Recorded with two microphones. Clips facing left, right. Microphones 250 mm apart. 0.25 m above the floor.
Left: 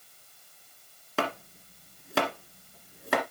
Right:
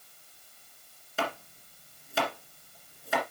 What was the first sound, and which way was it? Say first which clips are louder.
Chopping: left 3 dB; 70° left (ahead or behind).